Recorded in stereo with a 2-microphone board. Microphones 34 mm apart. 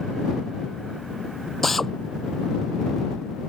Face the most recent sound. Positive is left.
turn(degrees=5)  # may be behind; listen again after turning